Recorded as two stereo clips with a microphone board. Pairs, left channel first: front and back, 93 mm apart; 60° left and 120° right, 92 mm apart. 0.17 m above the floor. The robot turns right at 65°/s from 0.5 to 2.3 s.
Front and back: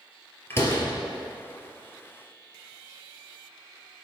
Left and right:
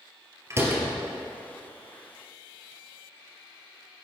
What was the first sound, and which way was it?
A door slam, 65° right.